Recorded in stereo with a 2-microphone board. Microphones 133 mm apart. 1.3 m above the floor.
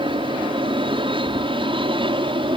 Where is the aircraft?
40° right (ahead or behind).